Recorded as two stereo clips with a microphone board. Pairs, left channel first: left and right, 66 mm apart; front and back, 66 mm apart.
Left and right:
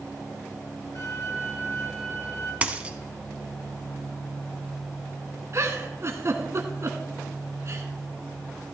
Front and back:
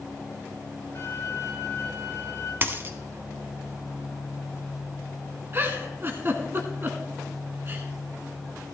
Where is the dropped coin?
150° right, 0.8 m.